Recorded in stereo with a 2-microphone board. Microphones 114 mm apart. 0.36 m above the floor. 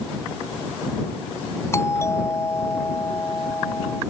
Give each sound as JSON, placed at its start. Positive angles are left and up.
{"t": 1.7, "sound": "a doorbell", "side_deg": 25}